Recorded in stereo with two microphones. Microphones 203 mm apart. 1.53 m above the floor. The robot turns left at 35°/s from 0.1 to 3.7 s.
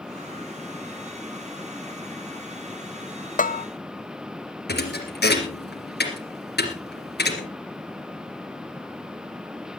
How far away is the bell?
About 0.7 m.